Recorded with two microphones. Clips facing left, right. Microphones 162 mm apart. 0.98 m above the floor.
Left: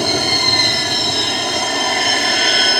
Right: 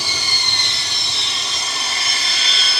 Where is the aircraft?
60° left (ahead or behind).